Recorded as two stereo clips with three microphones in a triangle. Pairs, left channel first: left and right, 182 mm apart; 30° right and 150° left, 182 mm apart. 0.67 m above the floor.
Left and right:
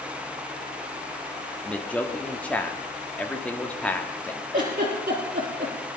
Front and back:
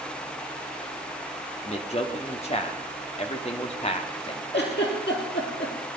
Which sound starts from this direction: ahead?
A man speaking, at 1.6 s.